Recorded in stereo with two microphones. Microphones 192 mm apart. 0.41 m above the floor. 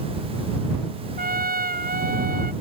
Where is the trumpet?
50° right (ahead or behind).